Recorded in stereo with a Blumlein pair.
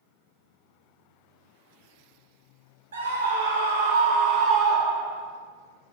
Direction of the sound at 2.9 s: 65° right.